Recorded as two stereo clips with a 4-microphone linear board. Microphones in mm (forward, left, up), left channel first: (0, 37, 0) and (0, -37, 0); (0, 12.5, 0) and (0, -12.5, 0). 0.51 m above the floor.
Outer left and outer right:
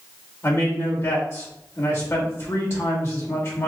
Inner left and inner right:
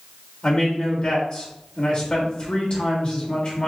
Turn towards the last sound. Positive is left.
turn(degrees=45)  # may be behind; listen again after turning